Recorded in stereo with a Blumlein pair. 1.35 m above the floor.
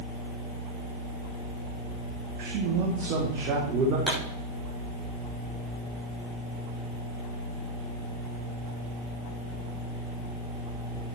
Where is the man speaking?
45° right, 2 m; by 4.0 s 35° right, 4 m.